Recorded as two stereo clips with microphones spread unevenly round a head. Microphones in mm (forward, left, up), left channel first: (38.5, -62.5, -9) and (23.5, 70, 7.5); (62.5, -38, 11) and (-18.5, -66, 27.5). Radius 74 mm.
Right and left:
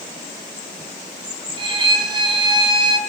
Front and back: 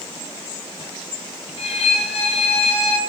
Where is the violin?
45° left, 4.5 m.